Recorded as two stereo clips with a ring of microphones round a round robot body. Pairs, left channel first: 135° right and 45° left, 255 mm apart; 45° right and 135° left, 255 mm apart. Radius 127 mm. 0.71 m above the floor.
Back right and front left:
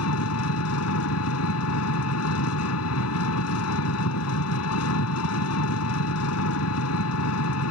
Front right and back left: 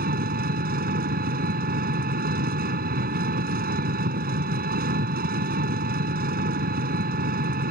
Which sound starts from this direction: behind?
An engine running, at 0.0 s.